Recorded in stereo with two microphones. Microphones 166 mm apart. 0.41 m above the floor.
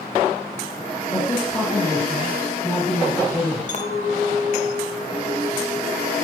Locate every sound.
1.1 s a man speaking: 5° left (ahead or behind), 2.0 m
3.7 s a clink: 50° left (ahead or behind), 0.7 m